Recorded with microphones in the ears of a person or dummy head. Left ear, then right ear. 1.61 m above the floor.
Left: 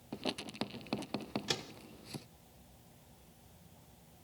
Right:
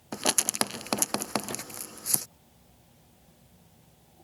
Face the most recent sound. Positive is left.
turn(degrees=80)